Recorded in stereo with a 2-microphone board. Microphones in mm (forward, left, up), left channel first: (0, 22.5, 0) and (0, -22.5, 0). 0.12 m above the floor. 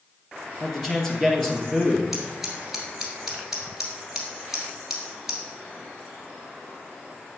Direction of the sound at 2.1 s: 5° right (ahead or behind).